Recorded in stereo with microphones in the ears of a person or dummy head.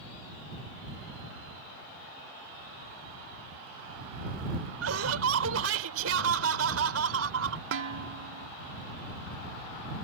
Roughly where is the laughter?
Right.